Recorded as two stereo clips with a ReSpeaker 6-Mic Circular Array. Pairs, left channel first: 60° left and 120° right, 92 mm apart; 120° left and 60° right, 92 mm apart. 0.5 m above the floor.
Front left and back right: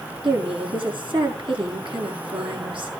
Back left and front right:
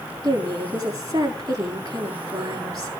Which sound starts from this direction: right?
A woman speaking, at 0.2 s.